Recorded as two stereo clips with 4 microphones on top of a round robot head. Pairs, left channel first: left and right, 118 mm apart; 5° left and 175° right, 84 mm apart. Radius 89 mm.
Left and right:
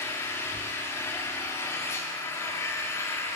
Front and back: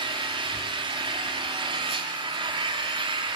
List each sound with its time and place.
0.0 s an engine running: 160° left, 0.7 m